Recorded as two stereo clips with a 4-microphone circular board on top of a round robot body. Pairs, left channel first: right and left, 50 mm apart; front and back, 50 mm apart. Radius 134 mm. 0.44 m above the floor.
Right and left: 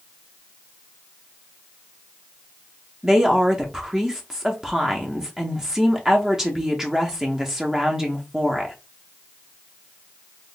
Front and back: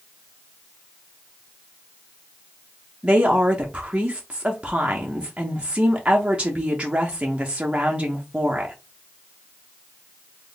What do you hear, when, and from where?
3.0 s a woman speaking: 150° left, 0.9 m